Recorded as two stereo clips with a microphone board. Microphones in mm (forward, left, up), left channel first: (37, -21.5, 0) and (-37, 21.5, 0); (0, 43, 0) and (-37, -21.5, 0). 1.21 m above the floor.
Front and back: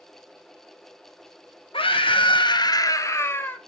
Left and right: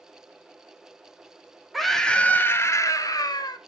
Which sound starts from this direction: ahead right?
A scream, at 1.7 s.